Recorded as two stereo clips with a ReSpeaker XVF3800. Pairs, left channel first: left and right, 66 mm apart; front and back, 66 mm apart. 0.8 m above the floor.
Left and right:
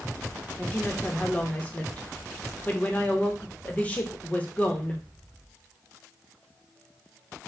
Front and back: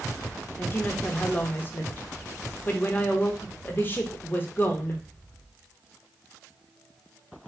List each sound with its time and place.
0.6 s a woman speaking: 35° left, 0.8 m